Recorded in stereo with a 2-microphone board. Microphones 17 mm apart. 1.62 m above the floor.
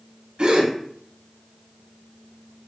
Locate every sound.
0.4 s a gasp: 80° right, 2 m